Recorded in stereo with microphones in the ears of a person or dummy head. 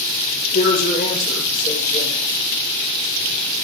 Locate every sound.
0.5 s a woman speaking: 45° left (ahead or behind), 1.4 m